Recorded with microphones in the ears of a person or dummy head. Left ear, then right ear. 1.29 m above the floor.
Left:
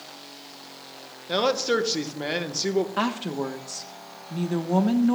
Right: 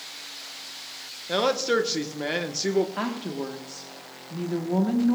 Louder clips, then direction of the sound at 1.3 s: Even; centre (ahead or behind).